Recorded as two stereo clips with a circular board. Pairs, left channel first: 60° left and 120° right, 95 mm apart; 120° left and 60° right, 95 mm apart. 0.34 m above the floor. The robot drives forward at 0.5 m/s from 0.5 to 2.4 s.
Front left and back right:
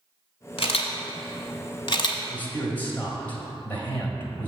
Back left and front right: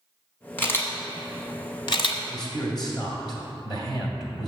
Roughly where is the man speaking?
Behind left.